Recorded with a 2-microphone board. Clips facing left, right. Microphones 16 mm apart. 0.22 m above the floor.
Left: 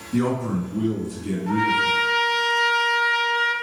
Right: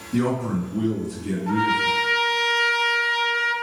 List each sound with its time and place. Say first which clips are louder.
0.1 s a man speaking: even; centre (ahead or behind), 2 m
1.5 s a trumpet: left 1 dB; 5° right (ahead or behind), 0.5 m